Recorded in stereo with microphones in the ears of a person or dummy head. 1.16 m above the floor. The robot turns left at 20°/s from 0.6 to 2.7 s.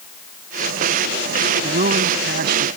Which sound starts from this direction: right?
A man speaking, at 1.6 s.